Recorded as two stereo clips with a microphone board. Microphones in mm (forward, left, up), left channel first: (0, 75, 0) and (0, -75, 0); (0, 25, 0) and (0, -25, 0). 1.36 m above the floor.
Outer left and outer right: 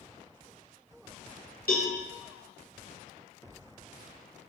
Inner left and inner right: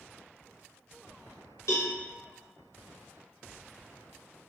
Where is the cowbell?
80° left, 0.8 m.